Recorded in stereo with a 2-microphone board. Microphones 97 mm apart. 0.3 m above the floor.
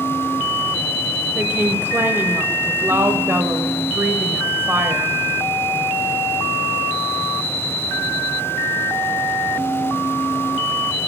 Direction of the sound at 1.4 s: 25° right (ahead or behind).